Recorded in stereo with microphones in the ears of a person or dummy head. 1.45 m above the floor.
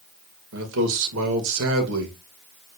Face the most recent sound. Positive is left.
turn(degrees=-65)  # may be behind; listen again after turning